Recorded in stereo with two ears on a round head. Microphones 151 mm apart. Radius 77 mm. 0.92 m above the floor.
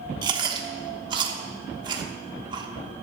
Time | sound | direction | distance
0.2 | chewing | 25° right (ahead or behind) | 1.1 m